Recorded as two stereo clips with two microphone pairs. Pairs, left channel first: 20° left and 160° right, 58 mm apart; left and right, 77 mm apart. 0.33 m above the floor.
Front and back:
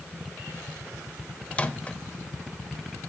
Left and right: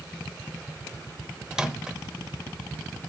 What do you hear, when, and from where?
1.5 s a microwave: 20° right, 0.7 m